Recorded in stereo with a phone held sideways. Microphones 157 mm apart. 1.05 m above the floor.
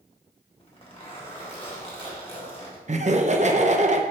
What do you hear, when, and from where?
0.6 s a zipper: 35° left (ahead or behind), 1.8 m
2.9 s laughter: 50° right (ahead or behind), 0.7 m